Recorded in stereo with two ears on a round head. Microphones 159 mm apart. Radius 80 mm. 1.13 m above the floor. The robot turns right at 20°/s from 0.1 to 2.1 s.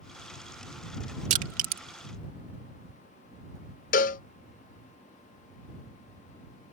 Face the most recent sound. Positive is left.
turn(degrees=50)  # may be behind; listen again after turning